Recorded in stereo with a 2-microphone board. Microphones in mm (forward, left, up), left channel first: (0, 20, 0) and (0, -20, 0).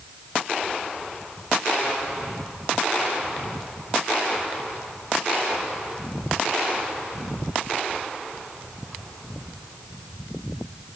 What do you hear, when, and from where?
Only background noise.